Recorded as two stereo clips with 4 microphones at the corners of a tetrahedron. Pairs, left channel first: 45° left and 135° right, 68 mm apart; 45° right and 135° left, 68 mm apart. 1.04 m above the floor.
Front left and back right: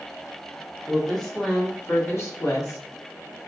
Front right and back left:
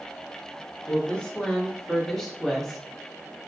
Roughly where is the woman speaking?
Ahead right.